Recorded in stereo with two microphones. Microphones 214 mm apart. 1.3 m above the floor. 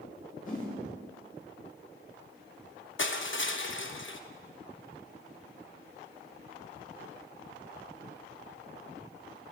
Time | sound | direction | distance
0.5 | a whoosh | 40° left (ahead or behind) | 6 m
3.0 | crushing | 65° left (ahead or behind) | 1.0 m